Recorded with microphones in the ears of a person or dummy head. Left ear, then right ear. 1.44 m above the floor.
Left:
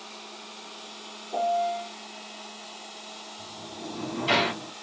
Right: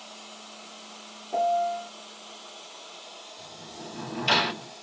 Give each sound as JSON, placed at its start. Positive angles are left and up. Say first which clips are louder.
{"t": 1.3, "sound": "a piano", "louder": "right 1 dB", "side_deg": -45, "distance_m": 0.7}
{"t": 3.4, "sound": "a sliding door", "louder": "left 2 dB", "side_deg": -30, "distance_m": 1.2}